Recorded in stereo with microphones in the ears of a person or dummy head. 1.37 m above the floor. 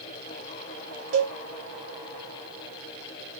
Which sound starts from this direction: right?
A cowbell, at 1.1 s.